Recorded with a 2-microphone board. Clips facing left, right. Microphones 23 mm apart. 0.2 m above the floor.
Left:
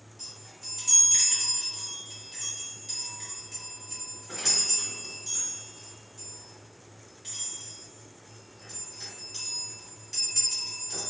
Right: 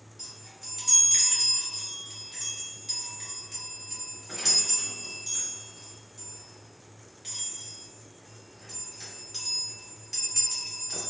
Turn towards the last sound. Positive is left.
turn(degrees=-10)  # may be behind; listen again after turning